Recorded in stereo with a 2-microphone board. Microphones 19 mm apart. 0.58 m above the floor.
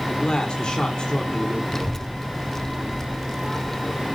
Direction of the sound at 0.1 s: 45° left (ahead or behind).